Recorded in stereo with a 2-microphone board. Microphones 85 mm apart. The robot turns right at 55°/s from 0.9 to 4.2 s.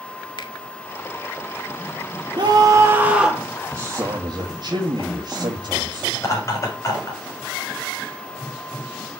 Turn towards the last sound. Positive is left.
turn(degrees=35)  # may be behind; listen again after turning